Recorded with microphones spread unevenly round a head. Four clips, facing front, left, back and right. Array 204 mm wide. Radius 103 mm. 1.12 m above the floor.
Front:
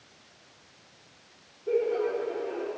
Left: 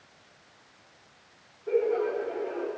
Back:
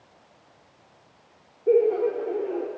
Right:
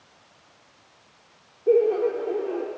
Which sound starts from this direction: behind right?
Laughter, at 1.7 s.